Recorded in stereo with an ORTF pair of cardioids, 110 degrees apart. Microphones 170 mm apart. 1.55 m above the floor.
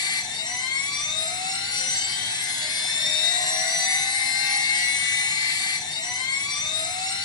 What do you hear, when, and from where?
0.0 s a machine running: 25° left, 0.8 m